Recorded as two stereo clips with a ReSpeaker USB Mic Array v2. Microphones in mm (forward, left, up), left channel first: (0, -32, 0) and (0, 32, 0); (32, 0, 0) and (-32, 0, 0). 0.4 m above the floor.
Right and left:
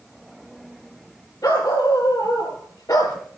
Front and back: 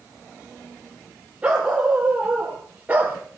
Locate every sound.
1.4 s a dog barking: 105° right, 5.5 m; by 3.2 s 115° right, 3.5 m